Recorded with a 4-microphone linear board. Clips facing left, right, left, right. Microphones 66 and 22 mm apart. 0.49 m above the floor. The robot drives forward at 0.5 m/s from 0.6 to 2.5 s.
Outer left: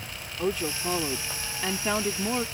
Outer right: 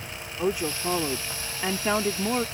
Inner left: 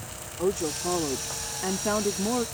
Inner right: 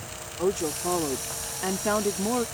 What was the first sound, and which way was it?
A woman speaking, 10° right (ahead or behind).